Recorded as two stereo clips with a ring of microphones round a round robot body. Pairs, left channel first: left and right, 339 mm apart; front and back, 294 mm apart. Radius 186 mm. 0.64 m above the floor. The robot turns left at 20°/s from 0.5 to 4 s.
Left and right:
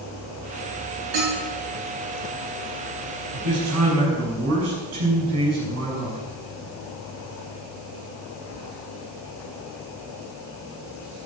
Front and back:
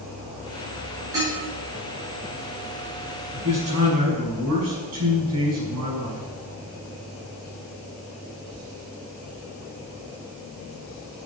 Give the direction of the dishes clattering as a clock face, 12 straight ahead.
3 o'clock.